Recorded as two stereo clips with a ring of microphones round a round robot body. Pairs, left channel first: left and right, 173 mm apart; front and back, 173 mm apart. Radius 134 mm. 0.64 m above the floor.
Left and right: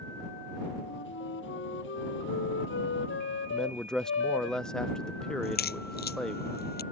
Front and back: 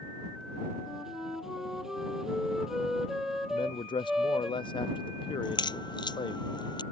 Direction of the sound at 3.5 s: 5° left.